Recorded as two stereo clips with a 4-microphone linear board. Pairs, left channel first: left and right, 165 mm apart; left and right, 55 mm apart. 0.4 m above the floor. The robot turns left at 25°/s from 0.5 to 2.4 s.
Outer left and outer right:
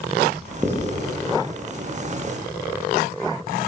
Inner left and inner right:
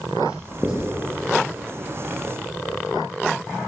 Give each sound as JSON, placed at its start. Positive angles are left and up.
{"t": 0.2, "sound": "writing", "side_deg": -20, "distance_m": 8.5}